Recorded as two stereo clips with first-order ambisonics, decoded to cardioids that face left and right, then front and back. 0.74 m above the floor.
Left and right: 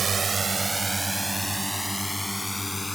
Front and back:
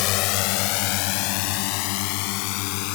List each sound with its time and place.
0.0 s a drone: 20° right; by 3.0 s 10° left